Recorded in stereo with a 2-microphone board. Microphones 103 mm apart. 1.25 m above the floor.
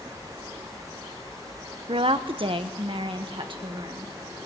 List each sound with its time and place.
1.9 s a woman speaking: 60° right (ahead or behind), 0.8 m; by 4.1 s 50° right (ahead or behind), 1.7 m